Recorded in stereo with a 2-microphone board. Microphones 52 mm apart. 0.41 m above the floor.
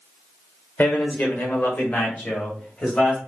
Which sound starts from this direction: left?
A man speaking, at 0.8 s.